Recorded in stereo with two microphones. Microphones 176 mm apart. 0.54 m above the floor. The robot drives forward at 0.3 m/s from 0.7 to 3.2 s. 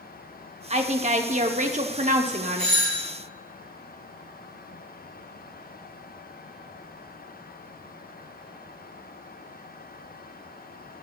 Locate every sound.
0.7 s a woman speaking: 40° right (ahead or behind), 1.0 m; by 2.8 s 45° right (ahead or behind), 0.9 m
2.6 s a doorbell: 30° right (ahead or behind), 3.5 m